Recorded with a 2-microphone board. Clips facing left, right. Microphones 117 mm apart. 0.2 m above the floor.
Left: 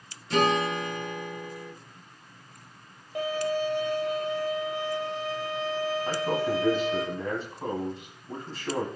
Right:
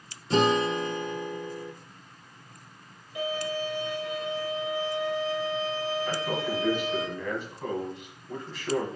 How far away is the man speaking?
About 1.6 m.